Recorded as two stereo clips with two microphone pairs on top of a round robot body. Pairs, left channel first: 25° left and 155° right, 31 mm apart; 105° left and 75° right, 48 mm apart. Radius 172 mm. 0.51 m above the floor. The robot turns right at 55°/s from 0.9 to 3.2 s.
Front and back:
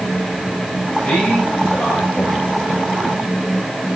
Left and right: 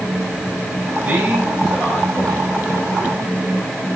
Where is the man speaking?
25° right, 4.5 m; by 3.9 s 95° left, 4.5 m.